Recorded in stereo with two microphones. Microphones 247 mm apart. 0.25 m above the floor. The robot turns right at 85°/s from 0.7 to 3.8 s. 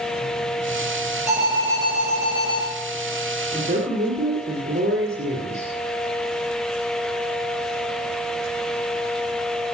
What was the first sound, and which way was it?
An alarm, 150° left.